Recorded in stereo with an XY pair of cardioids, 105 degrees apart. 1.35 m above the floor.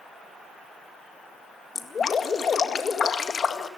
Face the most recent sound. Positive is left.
turn(degrees=40)